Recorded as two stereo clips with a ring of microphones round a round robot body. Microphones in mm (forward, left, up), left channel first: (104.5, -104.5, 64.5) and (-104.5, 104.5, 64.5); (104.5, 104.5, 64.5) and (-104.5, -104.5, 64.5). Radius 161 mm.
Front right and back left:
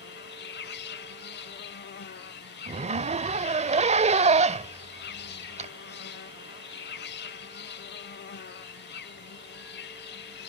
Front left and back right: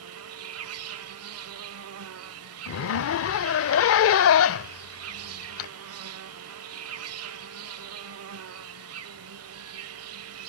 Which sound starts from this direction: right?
An insect, at 0.0 s.